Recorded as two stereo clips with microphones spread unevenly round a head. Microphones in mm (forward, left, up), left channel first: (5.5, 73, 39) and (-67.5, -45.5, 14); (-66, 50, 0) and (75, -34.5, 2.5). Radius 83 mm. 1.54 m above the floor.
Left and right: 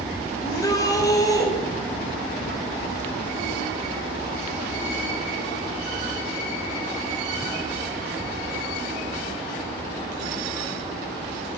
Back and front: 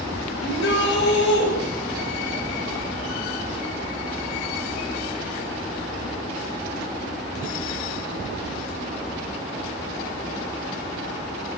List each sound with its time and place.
0.4 s a shout: 125° left, 7 m